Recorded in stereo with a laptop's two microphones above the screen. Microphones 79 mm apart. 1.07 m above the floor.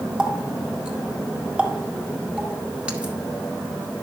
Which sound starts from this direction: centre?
A running tap, at 0.2 s.